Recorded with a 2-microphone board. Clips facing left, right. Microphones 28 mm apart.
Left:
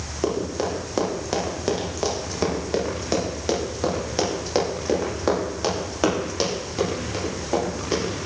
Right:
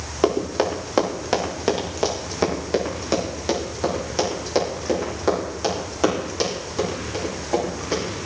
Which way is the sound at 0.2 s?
35° right (ahead or behind).